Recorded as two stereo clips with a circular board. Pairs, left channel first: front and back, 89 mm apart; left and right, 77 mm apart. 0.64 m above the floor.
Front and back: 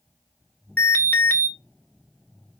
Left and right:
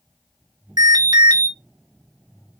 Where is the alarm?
65° right, 0.9 m.